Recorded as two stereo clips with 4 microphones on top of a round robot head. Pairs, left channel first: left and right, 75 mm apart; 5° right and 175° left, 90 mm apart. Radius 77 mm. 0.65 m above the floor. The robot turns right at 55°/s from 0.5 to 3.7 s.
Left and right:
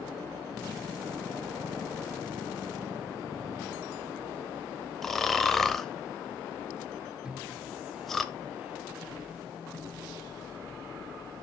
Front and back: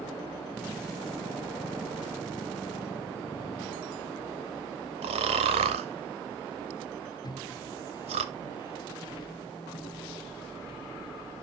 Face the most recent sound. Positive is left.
turn(degrees=-20)